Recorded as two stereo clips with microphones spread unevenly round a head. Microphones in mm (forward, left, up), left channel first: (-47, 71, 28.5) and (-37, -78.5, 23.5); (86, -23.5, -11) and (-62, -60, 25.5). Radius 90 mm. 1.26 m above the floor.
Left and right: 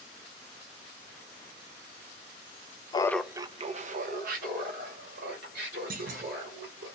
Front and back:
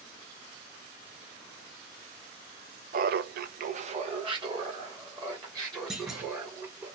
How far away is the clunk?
About 0.9 m.